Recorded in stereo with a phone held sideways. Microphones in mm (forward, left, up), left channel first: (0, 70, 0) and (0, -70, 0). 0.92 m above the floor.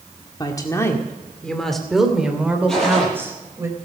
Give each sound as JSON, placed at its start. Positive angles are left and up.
{"t": 0.4, "sound": "a woman speaking", "side_deg": 30, "distance_m": 1.8}
{"t": 2.7, "sound": "a gunshot", "side_deg": 0, "distance_m": 9.0}